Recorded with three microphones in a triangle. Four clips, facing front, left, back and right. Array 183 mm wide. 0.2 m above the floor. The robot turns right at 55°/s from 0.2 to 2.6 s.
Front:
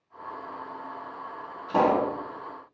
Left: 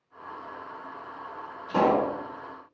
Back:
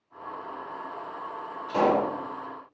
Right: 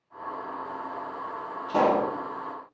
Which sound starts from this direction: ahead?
A pop, at 1.7 s.